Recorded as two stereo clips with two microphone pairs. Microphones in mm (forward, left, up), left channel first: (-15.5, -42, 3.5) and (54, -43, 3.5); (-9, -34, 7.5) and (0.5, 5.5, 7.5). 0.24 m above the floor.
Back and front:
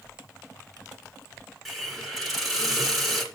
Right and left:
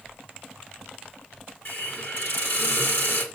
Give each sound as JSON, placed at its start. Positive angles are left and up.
{"t": 1.6, "sound": "a hiss", "azimuth_deg": -90, "distance_m": 2.0}